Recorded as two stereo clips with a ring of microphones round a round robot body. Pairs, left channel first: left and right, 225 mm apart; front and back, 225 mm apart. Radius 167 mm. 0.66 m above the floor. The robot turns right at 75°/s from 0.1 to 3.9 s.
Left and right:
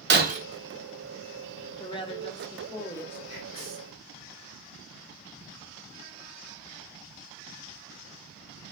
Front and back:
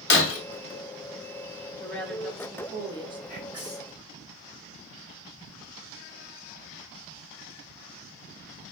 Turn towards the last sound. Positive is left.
turn(degrees=-100)